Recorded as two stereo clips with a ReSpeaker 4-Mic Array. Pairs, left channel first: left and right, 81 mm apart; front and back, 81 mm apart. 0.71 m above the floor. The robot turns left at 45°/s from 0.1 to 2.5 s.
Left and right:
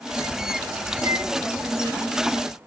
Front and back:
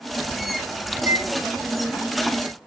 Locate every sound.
0.9 s a microwave: 120° right, 2.5 m; by 1.3 s 135° right, 2.5 m